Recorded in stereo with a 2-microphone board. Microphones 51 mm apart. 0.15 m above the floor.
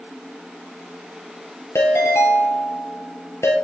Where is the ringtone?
65° left (ahead or behind), 2.5 m.